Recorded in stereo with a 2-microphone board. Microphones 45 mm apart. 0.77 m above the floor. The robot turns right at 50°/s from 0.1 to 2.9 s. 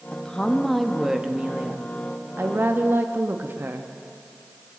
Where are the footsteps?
No footsteps in this recording.